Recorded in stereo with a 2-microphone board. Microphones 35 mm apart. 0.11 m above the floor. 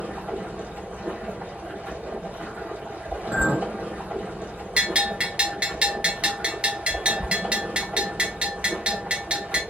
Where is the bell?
35° right (ahead or behind), 1.2 m.